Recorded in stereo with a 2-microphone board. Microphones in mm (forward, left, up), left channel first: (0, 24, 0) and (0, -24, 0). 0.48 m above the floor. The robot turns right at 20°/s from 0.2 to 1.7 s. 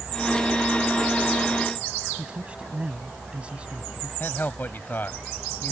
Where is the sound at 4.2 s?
45° left (ahead or behind).